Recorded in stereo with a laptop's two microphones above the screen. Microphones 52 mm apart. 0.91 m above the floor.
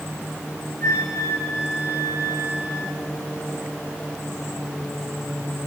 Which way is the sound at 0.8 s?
70° left (ahead or behind).